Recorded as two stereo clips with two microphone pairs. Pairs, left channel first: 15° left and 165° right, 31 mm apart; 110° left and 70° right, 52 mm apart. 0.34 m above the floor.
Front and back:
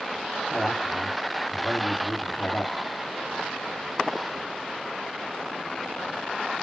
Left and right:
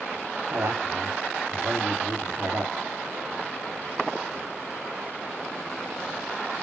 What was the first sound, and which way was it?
A man speaking, 55° right.